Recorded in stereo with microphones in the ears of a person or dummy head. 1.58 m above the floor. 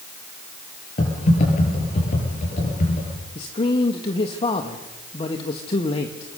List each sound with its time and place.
1.0 s typing on a keyboard: 35° left (ahead or behind), 8 m
3.4 s a man speaking: 30° left (ahead or behind), 1.9 m